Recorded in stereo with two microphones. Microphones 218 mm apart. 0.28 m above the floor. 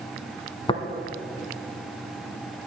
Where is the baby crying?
No baby crying in this recording.